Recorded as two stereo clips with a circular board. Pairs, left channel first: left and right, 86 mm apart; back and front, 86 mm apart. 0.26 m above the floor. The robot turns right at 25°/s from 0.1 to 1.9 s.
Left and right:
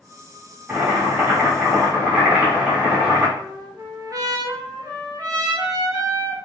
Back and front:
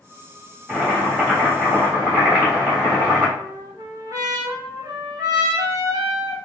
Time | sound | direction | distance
0.7 | boiling | 75° right | 1.6 m
3.4 | a trumpet | 40° right | 1.1 m